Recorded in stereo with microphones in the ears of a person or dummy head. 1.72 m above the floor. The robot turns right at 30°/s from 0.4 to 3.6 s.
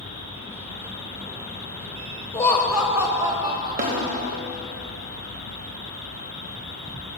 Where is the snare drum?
40° right (ahead or behind), 1.3 m.